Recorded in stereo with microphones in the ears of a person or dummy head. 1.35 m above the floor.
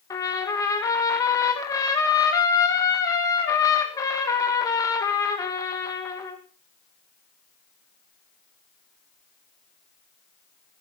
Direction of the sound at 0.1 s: 20° left (ahead or behind).